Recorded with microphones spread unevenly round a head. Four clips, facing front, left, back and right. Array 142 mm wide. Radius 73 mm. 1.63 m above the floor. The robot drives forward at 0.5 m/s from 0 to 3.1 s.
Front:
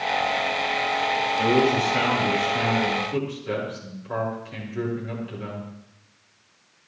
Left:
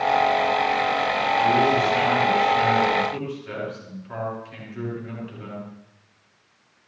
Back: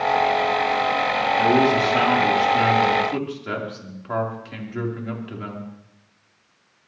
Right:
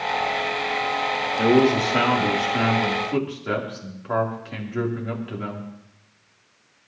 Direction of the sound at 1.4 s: 110° right.